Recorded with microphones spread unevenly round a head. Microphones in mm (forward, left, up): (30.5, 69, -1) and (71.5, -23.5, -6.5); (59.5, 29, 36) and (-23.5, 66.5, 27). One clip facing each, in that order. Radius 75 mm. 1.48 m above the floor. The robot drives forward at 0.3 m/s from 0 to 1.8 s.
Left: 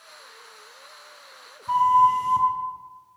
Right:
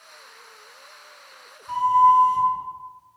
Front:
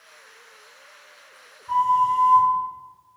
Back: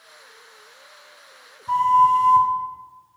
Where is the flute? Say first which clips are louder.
Right 1 dB, back 4 dB; 145° left, 2 m.